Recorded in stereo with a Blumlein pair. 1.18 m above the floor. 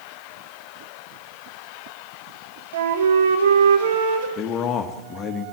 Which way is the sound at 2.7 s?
65° right.